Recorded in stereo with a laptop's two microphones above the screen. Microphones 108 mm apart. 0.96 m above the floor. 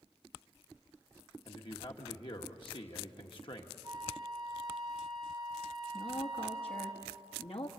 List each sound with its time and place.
1.4 s a man speaking: 50° left (ahead or behind), 1.6 m
3.8 s a flute: 40° right (ahead or behind), 1.5 m
5.9 s a woman speaking: 60° left (ahead or behind), 1.5 m